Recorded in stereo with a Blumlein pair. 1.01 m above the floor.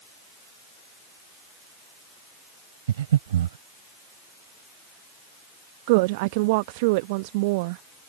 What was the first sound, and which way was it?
Breathing, 60° right.